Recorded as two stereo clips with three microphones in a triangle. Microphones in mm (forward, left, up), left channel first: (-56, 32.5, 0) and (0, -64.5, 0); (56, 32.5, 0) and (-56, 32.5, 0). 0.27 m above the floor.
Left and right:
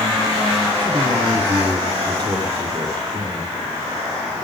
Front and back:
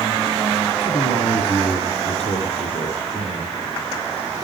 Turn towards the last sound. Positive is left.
turn(degrees=-10)